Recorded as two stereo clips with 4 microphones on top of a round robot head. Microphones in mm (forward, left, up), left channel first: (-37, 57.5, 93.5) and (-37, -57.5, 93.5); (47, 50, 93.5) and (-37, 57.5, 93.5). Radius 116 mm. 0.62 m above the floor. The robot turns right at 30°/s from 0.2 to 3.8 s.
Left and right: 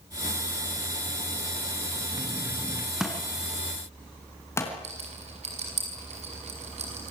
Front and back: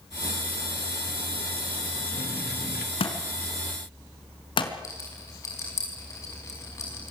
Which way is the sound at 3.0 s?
5° right.